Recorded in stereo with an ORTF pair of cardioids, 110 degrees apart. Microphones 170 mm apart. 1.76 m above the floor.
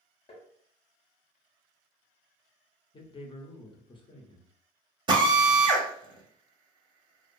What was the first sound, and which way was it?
Tapping, 35° left.